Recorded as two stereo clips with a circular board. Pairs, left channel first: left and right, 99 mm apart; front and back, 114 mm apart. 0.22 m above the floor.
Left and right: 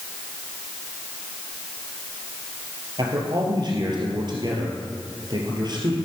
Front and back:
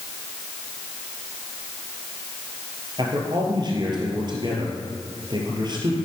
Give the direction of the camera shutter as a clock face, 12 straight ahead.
No camera shutter in this recording.